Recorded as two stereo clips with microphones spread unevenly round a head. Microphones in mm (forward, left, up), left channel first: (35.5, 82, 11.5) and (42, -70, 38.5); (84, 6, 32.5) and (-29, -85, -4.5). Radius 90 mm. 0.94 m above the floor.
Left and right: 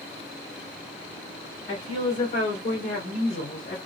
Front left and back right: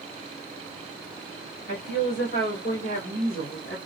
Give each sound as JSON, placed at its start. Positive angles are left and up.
{"t": 1.7, "sound": "a woman speaking", "azimuth_deg": 40, "distance_m": 2.5}